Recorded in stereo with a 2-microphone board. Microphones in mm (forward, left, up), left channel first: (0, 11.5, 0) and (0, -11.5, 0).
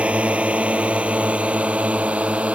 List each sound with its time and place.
0.0 s a drone: 65° right (ahead or behind); by 2.5 s 70° right (ahead or behind)